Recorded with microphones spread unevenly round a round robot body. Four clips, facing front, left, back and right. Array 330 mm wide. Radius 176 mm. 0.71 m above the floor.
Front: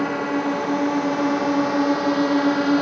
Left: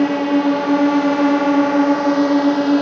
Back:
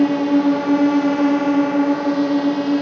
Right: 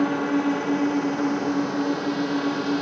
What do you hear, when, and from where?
0.0 s a drone: 155° left; by 2.8 s 80° left